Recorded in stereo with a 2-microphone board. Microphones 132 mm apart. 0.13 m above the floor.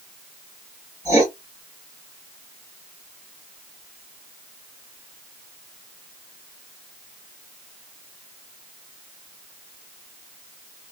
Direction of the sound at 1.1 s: 25° right (ahead or behind).